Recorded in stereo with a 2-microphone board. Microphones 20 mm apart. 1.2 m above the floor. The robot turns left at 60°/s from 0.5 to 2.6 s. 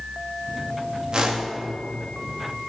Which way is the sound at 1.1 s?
45° right (ahead or behind).